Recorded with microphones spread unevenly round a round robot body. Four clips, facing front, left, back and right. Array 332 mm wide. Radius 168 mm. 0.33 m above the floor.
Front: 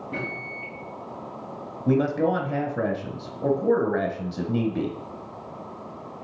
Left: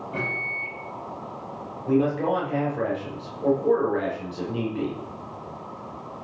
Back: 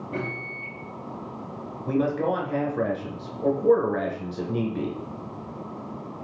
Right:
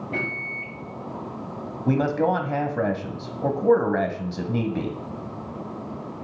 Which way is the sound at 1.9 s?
40° right.